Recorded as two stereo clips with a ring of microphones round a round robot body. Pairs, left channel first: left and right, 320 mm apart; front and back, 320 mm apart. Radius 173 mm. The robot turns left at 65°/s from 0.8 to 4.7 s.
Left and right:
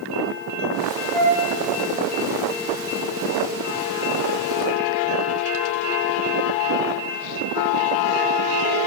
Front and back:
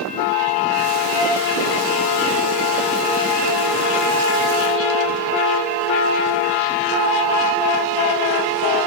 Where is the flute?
25° right, 1.9 m; by 1.4 s 40° right, 1.9 m.